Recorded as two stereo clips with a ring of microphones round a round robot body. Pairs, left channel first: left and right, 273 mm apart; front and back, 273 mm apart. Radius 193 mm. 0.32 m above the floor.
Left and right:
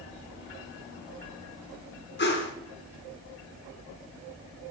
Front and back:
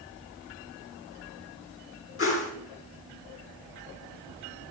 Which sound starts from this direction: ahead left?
A whoosh, at 2.2 s.